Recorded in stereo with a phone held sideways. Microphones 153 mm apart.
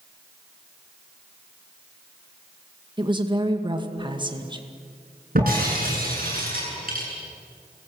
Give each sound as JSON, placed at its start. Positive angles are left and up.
{"t": 3.0, "sound": "a woman speaking", "side_deg": -30, "distance_m": 2.0}
{"t": 5.3, "sound": "breaking glass", "side_deg": -65, "distance_m": 9.5}